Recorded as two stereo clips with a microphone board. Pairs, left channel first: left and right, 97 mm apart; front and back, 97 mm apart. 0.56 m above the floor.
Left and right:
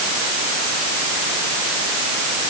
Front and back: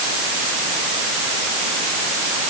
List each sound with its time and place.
Only background noise.